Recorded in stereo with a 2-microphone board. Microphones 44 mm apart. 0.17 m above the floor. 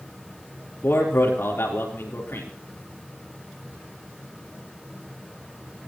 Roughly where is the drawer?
I don't hear a drawer.